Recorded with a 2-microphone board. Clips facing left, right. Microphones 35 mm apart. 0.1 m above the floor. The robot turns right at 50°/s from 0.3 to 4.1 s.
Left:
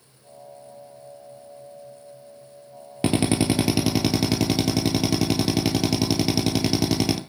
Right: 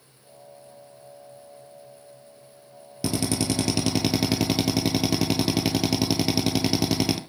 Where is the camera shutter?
I don't hear a camera shutter.